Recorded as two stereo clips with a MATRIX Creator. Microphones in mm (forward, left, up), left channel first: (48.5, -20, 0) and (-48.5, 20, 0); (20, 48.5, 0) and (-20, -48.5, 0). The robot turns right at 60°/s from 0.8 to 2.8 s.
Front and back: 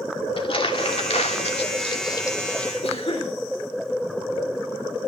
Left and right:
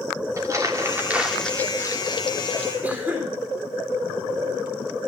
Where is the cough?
40° right, 4 m.